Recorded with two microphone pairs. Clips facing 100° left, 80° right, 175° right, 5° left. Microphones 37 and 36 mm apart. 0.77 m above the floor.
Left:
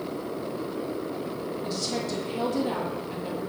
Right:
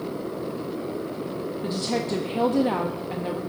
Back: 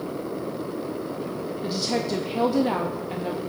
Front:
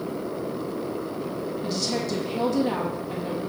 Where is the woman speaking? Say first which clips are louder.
Right 5 dB, back 3 dB; 110° right, 0.8 m.